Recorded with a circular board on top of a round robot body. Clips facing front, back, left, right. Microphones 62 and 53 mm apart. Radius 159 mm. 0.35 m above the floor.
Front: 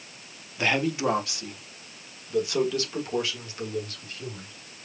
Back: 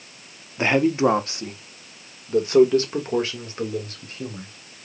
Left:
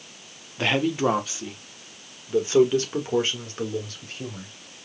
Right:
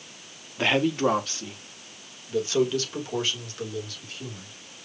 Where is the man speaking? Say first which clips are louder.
Back 6 dB, even; 170° right, 1.3 m; by 4.5 s 135° left, 3 m.